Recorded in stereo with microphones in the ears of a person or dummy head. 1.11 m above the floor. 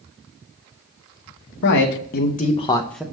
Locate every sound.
1.6 s a man speaking: 60° left (ahead or behind), 1.0 m; by 3.0 s centre (ahead or behind), 0.6 m